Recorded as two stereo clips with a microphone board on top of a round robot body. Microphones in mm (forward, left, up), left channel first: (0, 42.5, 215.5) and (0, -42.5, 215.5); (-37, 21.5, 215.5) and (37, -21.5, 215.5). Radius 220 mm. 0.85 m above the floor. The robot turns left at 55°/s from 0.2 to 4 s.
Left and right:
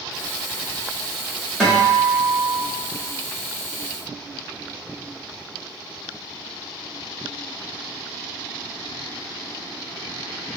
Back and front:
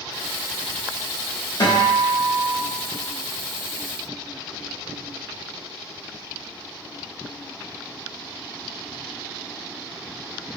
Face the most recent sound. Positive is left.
turn(degrees=45)